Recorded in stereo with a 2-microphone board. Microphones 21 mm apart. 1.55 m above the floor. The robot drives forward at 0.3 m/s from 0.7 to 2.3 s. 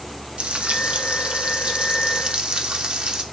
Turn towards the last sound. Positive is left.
turn(degrees=-65)  # may be behind; listen again after turning